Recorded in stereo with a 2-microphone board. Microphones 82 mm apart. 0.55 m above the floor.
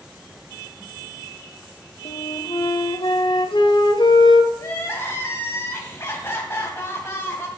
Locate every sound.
2.0 s a flute: 70° left (ahead or behind), 0.8 m
4.6 s crying: 30° left (ahead or behind), 1.8 m